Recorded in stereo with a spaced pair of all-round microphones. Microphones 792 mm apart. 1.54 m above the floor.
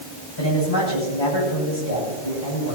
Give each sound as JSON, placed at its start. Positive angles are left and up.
{"t": 0.4, "sound": "a man speaking", "side_deg": 30, "distance_m": 7.5}